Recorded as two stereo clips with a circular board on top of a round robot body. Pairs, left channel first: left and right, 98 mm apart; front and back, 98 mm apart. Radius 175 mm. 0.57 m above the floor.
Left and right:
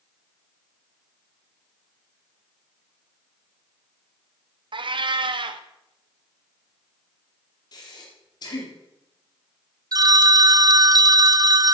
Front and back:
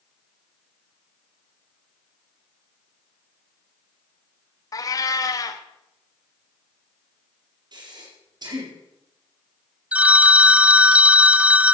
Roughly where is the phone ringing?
Right.